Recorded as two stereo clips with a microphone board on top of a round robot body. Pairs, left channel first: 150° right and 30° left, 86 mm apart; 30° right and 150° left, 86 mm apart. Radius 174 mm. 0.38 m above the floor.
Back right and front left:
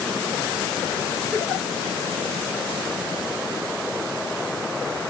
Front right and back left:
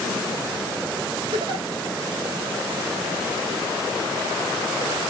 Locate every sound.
1.3 s a giggle: 150° left, 1.7 m